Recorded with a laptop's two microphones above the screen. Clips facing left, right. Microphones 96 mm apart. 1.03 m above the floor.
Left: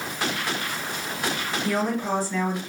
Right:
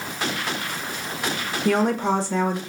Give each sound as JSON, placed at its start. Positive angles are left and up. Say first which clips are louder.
{"t": 1.6, "sound": "a woman speaking", "louder": "right 5 dB", "side_deg": -60, "distance_m": 0.8}